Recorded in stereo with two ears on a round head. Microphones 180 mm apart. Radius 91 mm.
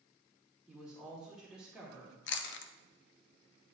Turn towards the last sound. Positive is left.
turn(degrees=60)  # may be behind; listen again after turning